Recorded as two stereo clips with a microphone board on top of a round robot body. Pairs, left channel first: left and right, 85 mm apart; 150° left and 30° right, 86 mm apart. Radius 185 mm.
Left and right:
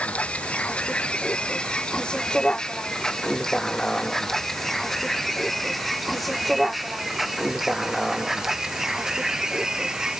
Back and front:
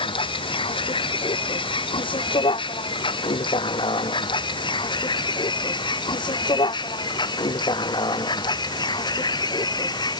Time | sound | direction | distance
0.0 | a vehicle | 165° left | ?